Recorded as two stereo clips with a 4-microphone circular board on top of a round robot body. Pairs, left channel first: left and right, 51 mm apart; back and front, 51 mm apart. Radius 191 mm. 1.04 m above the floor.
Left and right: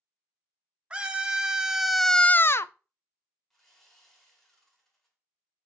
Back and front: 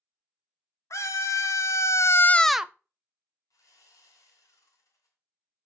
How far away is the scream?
About 1.7 m.